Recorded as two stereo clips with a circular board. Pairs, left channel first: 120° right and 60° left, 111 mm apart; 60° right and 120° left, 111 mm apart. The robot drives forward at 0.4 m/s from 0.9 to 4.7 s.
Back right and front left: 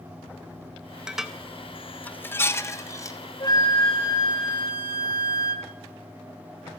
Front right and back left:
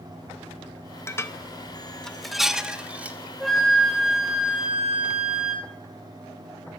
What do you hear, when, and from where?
1.1 s dishes clattering: 15° right, 0.6 m; by 3.2 s 170° right, 0.7 m
3.4 s a flute: 145° right, 1.3 m; by 5.7 s 160° right, 1.7 m